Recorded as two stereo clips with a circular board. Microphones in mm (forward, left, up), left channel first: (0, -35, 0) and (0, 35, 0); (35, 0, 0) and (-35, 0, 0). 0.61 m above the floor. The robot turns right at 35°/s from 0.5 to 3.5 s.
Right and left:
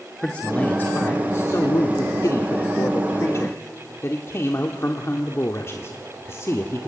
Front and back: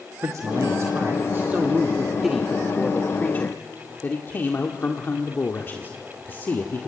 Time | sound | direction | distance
0.2 | a man speaking | 160° right | 1.6 m